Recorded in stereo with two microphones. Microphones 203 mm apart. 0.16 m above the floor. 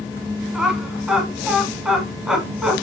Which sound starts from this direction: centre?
Laughter, at 0.5 s.